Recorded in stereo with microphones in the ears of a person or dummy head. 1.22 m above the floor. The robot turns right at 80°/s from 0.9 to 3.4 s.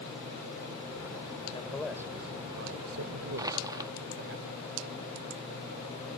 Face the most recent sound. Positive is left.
turn(degrees=-15)  # may be behind; listen again after turning